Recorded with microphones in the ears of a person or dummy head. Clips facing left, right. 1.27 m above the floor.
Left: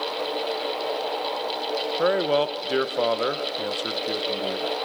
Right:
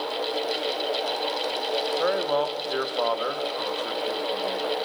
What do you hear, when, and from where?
2.0 s a man speaking: 30° left (ahead or behind), 0.8 m